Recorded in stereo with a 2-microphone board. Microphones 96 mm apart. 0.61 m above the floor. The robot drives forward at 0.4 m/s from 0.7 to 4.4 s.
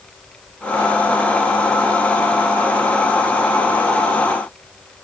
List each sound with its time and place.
Only background noise.